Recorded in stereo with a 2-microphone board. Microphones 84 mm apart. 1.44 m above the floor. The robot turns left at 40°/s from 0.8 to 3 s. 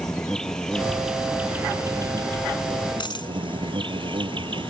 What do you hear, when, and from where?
0.0 s an insect: 5° left; by 4.7 s 80° right
3.0 s a dropped coin: 65° left (ahead or behind)